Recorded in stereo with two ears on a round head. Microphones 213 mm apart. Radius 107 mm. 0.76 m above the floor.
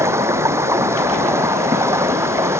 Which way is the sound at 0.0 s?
10° right (ahead or behind).